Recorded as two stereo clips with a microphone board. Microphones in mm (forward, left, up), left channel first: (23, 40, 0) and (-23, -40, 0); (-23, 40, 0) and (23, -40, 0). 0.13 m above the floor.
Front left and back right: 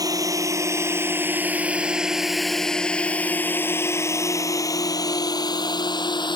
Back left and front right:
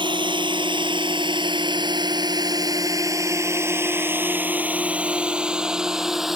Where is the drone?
75° right; by 6.4 s 25° left.